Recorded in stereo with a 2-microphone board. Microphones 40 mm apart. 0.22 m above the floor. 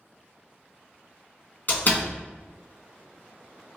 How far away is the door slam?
About 1.6 m.